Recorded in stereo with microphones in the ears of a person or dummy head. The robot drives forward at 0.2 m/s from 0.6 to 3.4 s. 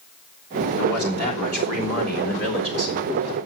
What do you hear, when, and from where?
0.8 s a man speaking: 60° left (ahead or behind), 3.5 m; by 3.0 s 55° left (ahead or behind), 4 m